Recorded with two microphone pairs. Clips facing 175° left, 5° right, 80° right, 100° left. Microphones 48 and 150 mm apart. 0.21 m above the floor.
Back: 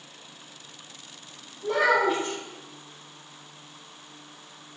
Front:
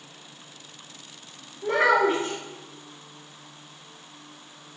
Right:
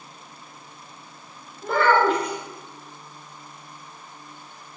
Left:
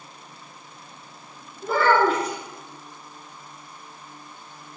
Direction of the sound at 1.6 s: 15° left.